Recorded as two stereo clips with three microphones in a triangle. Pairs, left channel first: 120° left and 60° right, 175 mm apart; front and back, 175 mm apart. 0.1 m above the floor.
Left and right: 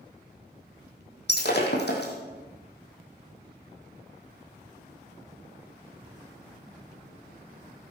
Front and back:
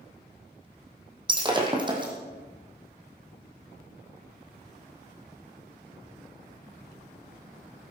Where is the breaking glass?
115° left, 3 m.